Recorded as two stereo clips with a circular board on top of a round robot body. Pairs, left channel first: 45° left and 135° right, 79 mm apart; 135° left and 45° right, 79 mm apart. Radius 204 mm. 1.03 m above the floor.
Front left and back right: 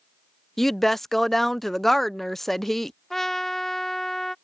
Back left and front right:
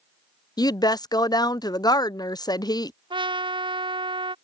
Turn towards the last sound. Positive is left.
turn(degrees=-40)